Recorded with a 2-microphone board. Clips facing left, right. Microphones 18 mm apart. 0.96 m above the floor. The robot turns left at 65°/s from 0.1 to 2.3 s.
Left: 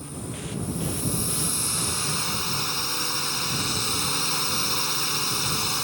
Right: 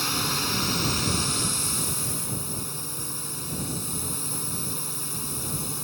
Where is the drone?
80° right; by 5.8 s 135° left.